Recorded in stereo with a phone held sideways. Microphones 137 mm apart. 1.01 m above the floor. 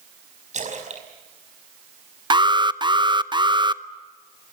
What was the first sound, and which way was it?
A splash, 60° right (ahead or behind).